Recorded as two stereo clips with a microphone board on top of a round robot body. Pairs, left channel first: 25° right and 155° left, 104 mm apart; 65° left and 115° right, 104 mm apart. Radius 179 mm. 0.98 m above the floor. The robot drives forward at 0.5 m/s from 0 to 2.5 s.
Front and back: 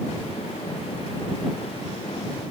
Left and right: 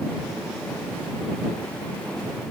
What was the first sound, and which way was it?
Only background noise.